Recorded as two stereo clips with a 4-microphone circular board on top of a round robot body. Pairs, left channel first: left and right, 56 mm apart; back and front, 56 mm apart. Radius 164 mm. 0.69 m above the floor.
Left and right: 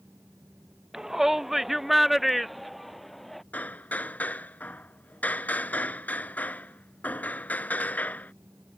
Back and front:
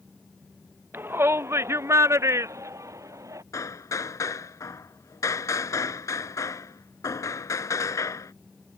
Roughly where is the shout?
Ahead.